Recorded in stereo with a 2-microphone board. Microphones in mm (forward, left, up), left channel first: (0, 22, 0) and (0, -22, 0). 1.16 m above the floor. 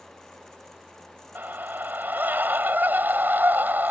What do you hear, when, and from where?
1.4 s a scream: 45° right (ahead or behind)